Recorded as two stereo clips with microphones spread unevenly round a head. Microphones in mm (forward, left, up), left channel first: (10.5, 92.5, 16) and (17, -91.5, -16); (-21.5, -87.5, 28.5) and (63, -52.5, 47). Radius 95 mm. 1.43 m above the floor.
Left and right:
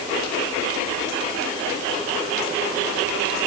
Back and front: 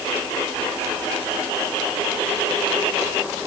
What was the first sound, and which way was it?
Only background noise.